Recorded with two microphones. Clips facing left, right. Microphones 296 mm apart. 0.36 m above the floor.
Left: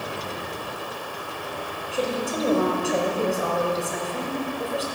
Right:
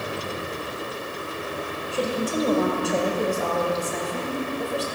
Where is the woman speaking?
Centre (ahead or behind), 1.2 m.